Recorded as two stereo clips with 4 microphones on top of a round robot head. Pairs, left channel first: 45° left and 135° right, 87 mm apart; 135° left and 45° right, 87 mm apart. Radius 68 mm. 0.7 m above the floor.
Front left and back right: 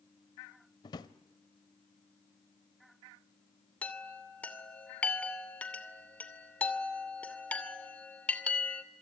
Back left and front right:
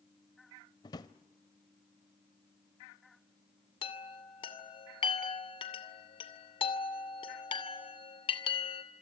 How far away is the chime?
About 2.5 m.